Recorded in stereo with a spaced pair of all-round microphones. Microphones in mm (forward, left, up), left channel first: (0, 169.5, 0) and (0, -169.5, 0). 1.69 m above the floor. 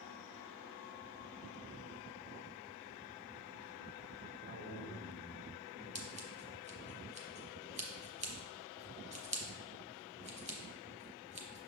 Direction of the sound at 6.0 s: 20° right (ahead or behind).